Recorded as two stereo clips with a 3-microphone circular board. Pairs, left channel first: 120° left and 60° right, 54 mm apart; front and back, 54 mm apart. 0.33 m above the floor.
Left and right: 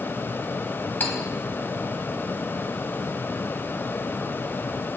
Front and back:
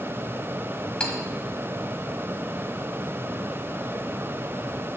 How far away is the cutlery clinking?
About 1.1 m.